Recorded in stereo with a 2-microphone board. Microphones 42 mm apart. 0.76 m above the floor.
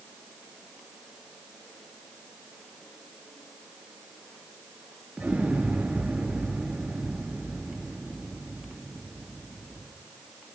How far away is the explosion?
About 3.5 m.